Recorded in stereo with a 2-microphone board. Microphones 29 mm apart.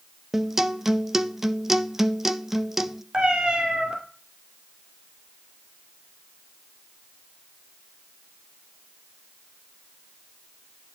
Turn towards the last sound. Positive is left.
turn(degrees=-40)  # may be behind; listen again after turning